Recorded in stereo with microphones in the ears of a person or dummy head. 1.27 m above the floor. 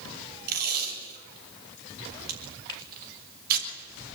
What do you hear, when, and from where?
0.5 s tape being pulled: 55° right (ahead or behind), 5.5 m
2.7 s a finger snap: 30° left (ahead or behind), 4.5 m